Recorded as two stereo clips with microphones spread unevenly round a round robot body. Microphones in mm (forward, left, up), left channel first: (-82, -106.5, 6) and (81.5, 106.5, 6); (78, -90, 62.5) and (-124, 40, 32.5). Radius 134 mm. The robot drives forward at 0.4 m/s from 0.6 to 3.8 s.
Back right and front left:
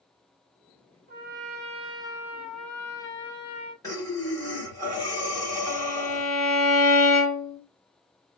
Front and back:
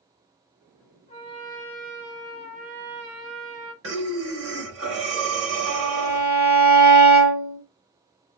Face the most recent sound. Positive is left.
turn(degrees=155)